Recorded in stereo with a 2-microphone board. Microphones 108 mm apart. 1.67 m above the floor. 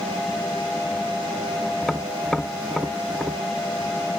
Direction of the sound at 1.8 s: Centre (ahead or behind).